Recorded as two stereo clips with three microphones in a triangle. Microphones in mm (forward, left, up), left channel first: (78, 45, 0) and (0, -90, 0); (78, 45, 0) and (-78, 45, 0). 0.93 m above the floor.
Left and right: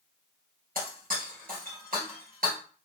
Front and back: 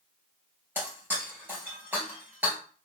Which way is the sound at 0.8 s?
100° right.